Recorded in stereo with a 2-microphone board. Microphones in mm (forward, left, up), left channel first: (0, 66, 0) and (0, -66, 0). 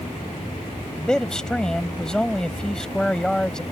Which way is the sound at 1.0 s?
5° left (ahead or behind).